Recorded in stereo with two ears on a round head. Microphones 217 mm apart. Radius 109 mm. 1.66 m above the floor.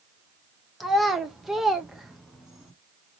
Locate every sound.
0.8 s a child speaking: centre (ahead or behind), 0.8 m